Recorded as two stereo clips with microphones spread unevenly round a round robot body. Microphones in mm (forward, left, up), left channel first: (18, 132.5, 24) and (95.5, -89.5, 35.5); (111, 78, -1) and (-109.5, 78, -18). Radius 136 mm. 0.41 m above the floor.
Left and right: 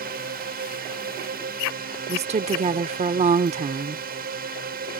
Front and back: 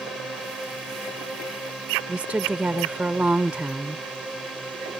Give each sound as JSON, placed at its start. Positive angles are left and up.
{"t": 0.0, "sound": "a drone", "azimuth_deg": -90}
{"t": 2.1, "sound": "a woman speaking", "azimuth_deg": -105}